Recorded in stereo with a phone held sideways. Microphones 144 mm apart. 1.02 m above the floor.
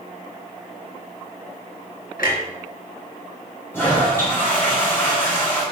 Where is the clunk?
80° left, 4 m.